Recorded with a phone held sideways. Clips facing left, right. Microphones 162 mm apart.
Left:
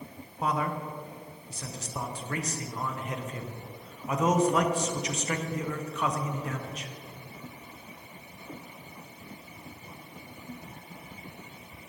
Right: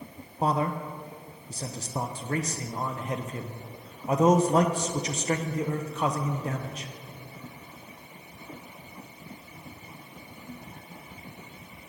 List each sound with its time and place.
0.4 s a man speaking: 35° right (ahead or behind), 0.7 m